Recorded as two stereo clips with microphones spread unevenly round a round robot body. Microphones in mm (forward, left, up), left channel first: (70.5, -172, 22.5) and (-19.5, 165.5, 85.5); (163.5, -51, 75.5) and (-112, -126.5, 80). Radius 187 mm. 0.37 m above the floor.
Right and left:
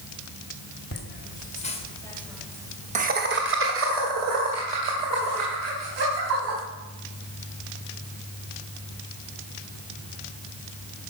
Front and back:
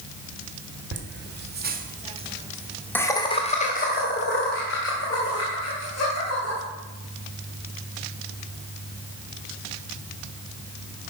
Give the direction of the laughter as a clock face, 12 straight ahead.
4 o'clock.